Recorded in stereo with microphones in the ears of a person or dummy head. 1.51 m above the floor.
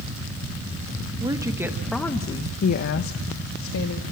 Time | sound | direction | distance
1.2 | a woman speaking | 25° right (ahead or behind) | 1.8 m